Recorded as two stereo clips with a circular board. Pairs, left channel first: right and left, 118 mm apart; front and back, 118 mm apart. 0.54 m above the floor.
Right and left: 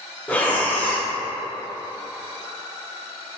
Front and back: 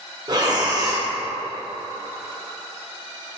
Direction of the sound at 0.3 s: 155° right.